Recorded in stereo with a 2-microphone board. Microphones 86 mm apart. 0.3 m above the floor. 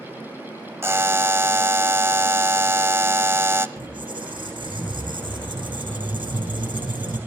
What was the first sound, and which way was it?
A buzzer, 30° right (ahead or behind).